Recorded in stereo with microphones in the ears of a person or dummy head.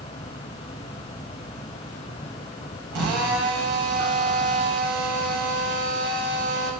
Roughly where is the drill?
Right.